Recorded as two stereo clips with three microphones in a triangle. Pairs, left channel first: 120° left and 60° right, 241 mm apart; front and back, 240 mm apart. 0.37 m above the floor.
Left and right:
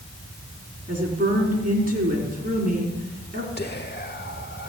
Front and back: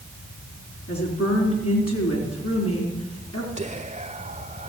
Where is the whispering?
130° left, 1.1 m.